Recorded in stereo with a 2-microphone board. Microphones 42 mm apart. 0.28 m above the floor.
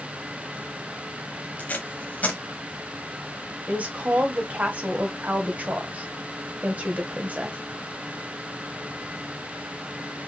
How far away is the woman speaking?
About 1.2 m.